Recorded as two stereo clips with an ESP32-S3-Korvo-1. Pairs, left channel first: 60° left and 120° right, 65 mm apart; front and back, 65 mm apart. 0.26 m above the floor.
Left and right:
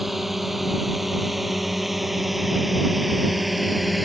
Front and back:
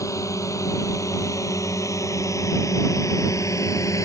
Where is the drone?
35° right; by 4.0 s 30° right.